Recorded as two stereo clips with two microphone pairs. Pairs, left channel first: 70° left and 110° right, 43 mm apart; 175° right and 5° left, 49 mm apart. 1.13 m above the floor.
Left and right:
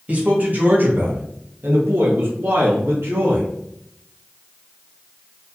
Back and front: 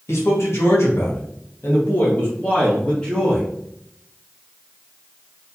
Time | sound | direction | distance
0.1 | a man speaking | 165° right | 2.0 m